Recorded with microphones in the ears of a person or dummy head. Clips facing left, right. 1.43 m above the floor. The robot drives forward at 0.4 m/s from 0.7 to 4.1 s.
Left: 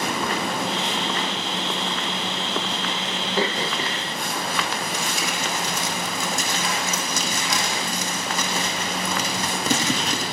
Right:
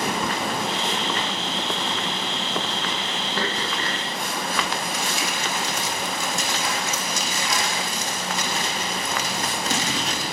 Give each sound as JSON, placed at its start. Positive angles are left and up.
{"t": 3.4, "sound": "throat clearing", "side_deg": 10, "distance_m": 0.5}
{"t": 4.9, "sound": "crumpling", "side_deg": 70, "distance_m": 1.7}